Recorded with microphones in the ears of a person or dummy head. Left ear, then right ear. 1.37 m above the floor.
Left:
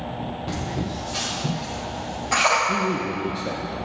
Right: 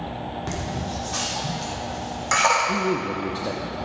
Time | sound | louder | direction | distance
0.5 | laughter | even | 60° right (ahead or behind) | 4 m
2.7 | a man speaking | even | 10° right (ahead or behind) | 0.6 m